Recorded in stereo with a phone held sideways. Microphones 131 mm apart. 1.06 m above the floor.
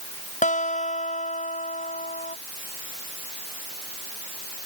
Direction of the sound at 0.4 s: 80° left.